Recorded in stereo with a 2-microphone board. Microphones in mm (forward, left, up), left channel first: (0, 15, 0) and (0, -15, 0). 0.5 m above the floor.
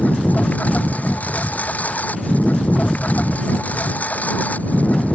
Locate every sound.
0.0 s a lawn mower: 55° left (ahead or behind)